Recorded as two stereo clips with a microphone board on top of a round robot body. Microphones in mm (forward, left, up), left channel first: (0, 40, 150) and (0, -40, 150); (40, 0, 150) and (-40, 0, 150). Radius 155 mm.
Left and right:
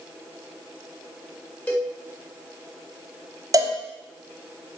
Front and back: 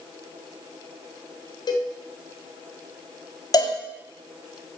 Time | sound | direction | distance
1.7 | a cowbell | 25° left | 2 m
3.5 | a cowbell | 40° right | 1.2 m